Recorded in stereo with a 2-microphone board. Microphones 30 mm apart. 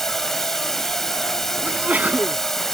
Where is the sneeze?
60° right (ahead or behind).